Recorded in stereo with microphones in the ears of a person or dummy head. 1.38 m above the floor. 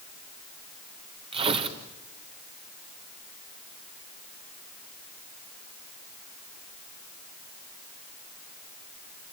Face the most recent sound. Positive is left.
turn(degrees=-30)  # may be behind; listen again after turning